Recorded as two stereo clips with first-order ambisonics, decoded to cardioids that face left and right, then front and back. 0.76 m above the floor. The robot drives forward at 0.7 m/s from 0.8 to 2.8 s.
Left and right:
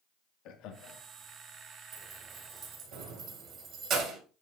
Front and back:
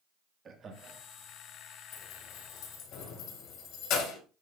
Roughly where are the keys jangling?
Ahead right.